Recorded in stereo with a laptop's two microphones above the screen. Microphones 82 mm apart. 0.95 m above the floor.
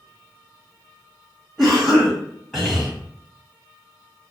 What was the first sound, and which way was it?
A cough, 5° right (ahead or behind).